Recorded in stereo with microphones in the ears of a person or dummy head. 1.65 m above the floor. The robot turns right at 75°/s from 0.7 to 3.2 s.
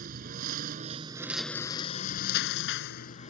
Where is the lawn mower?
50° right; by 3.3 s 135° left.